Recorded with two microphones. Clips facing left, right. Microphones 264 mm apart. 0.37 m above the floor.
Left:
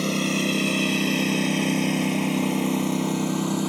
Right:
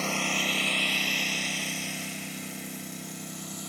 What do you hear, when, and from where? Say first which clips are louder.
0.0 s a lawn mower: left 9 dB; 40° left (ahead or behind); by 3.7 s 80° left